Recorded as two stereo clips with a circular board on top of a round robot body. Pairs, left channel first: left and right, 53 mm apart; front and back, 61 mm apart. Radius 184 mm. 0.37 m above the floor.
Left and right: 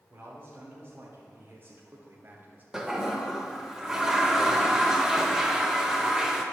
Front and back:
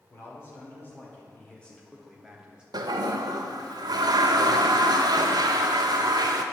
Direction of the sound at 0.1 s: 45° right.